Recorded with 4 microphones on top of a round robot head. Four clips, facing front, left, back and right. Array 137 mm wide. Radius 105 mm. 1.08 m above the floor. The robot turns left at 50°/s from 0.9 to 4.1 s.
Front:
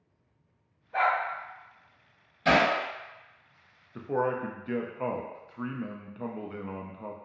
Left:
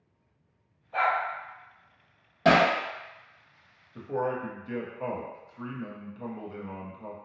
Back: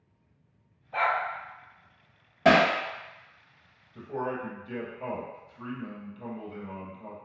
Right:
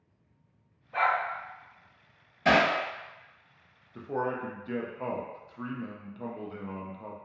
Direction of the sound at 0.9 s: 155° left.